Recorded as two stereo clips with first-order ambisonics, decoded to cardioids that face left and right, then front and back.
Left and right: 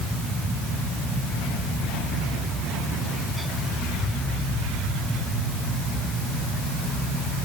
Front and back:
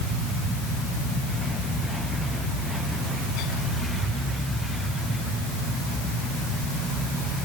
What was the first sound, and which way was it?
Only background noise.